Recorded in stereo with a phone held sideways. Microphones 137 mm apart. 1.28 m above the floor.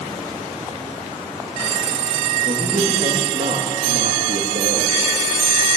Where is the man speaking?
70° right (ahead or behind), 2.5 m.